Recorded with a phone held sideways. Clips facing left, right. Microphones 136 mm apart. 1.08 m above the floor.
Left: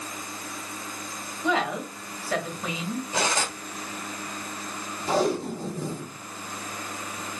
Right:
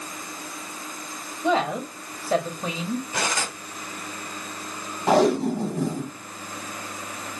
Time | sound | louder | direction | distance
1.4 | a woman speaking | right 3 dB | 25° right (ahead or behind) | 0.8 m
3.1 | cutlery clinking | left 1 dB | 25° left (ahead or behind) | 1.1 m
5.1 | tape being pulled | right 6 dB | 75° right (ahead or behind) | 0.9 m